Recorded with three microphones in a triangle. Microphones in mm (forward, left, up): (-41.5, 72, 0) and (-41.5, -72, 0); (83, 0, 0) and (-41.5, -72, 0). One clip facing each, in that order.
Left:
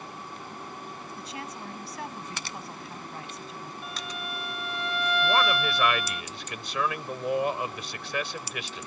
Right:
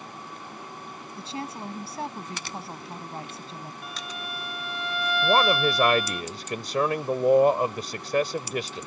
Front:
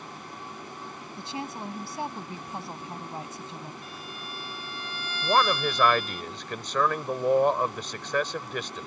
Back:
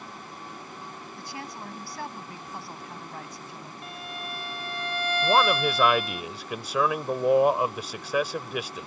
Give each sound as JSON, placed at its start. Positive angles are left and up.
{"t": 1.2, "sound": "a woman speaking", "azimuth_deg": -35}
{"t": 3.8, "sound": "a violin", "azimuth_deg": 180}
{"t": 5.2, "sound": "a man speaking", "azimuth_deg": -70}